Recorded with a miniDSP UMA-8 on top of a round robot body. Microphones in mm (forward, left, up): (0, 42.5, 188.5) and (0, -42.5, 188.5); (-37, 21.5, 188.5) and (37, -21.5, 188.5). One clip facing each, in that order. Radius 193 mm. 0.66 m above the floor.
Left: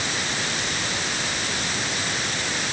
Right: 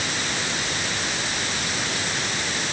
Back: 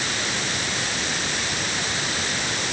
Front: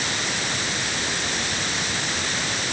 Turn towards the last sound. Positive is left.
No sound to turn to.